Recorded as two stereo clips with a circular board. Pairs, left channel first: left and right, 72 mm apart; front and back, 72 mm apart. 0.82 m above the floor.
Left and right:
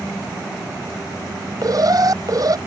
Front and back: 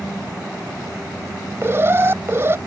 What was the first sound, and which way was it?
An alarm, 125° right.